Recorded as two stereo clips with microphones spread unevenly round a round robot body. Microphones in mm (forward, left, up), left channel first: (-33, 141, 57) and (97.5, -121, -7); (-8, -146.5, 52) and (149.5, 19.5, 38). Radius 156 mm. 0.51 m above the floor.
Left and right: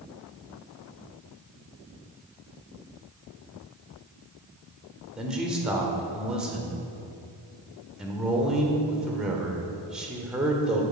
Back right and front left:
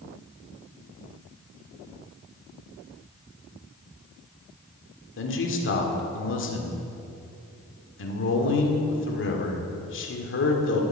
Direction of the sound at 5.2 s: 140° right.